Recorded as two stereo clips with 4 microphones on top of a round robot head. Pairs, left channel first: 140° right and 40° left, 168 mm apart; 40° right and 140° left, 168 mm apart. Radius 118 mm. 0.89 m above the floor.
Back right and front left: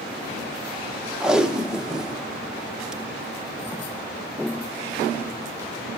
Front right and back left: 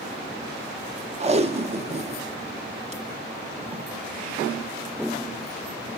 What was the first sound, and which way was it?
Tape being pulled, 125° left.